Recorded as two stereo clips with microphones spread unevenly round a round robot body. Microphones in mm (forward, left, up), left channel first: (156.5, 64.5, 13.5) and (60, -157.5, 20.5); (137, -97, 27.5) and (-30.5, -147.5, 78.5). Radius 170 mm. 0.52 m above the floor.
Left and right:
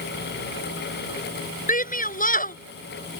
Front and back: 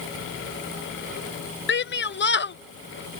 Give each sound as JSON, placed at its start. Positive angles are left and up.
{"t": 1.7, "sound": "a shout", "azimuth_deg": 10}